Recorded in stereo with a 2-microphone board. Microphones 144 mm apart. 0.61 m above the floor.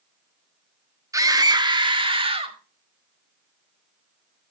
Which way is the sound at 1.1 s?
25° right (ahead or behind).